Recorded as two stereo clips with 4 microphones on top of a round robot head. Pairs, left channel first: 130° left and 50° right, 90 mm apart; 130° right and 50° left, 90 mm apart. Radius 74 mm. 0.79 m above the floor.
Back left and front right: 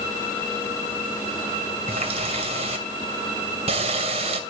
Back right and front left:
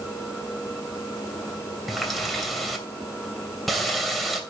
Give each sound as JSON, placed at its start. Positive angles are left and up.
{"t": 1.9, "sound": "a running tap", "azimuth_deg": -40, "distance_m": 3.0}